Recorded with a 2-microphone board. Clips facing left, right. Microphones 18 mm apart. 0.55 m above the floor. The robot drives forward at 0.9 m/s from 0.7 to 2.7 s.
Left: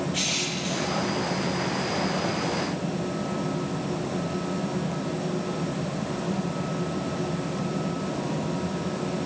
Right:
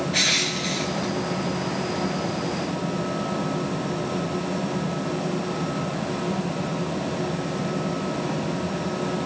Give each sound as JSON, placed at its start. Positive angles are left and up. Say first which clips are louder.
{"t": 0.1, "sound": "crushing", "louder": "right 9 dB", "side_deg": -85, "distance_m": 4.0}